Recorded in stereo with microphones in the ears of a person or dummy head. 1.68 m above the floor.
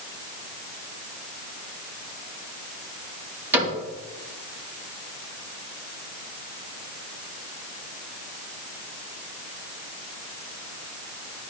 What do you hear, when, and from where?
3.5 s a cupboard door: 15° right (ahead or behind), 4.5 m